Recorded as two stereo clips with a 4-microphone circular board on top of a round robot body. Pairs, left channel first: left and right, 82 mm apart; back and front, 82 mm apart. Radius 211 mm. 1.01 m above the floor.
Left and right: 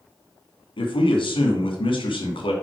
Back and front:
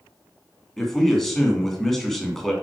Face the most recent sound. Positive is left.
turn(degrees=95)